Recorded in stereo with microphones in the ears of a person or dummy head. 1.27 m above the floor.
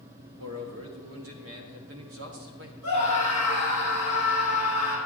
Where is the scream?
75° right (ahead or behind), 3.5 m.